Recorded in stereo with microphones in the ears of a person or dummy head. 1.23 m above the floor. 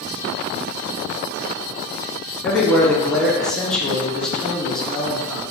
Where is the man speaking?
5° left (ahead or behind), 0.9 m.